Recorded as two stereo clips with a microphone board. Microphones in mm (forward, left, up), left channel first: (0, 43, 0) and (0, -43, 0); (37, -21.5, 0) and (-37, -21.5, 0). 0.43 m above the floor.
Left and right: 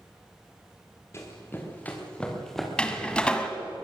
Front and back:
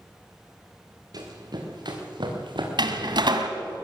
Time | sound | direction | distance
1.1 | running footsteps | 150° left | 4.5 m
2.8 | a door slam | 170° left | 2 m